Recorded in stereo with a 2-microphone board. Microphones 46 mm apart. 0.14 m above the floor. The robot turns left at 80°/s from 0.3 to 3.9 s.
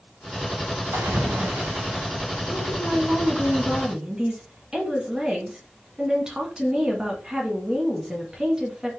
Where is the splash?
75° right, 3 m; by 2.0 s 165° right, 3 m.